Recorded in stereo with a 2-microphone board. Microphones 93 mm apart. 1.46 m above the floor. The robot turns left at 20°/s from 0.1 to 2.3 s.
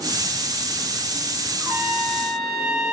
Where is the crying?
No crying in this recording.